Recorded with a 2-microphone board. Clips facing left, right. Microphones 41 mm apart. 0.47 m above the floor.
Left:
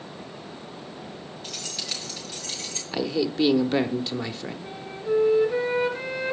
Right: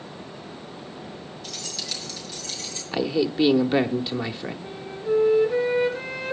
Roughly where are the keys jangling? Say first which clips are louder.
Even; left.